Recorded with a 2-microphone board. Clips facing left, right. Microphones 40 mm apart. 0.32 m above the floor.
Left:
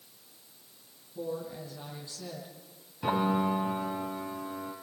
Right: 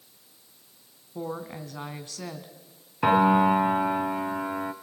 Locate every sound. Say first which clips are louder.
1.1 s a woman speaking: right 2 dB; 70° right (ahead or behind), 2.5 m
3.0 s a piano: right 8 dB; 60° right (ahead or behind), 1.5 m